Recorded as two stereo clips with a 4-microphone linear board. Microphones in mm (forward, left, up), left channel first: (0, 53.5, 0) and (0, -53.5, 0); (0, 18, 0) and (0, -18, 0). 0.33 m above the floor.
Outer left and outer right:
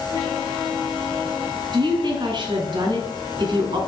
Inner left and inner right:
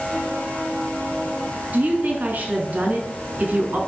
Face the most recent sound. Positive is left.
turn(degrees=-45)  # may be behind; listen again after turning